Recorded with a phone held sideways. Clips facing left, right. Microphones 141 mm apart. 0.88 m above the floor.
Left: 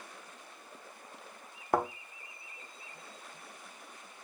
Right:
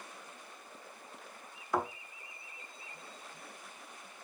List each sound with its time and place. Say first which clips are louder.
1.7 s a thud: left 3 dB; 50° left (ahead or behind), 0.7 m